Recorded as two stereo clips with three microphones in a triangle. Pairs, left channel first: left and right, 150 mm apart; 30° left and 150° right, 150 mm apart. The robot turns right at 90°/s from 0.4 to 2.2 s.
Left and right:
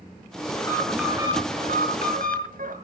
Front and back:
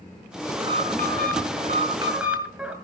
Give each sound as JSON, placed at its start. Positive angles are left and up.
{"t": 0.6, "sound": "an alarm", "azimuth_deg": 145, "distance_m": 5.0}